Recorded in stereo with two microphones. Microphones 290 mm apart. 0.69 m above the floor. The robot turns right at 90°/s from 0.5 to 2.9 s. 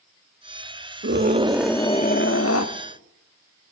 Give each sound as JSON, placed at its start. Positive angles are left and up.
{"t": 1.0, "sound": "a scream", "azimuth_deg": -55, "distance_m": 0.9}